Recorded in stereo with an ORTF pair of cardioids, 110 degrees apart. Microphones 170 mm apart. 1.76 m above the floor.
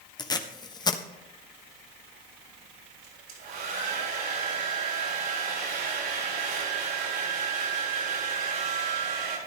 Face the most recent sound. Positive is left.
turn(degrees=-65)